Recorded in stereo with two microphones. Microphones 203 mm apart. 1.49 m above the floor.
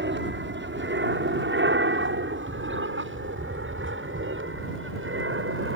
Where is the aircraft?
60° right (ahead or behind); by 5.8 s 75° right (ahead or behind).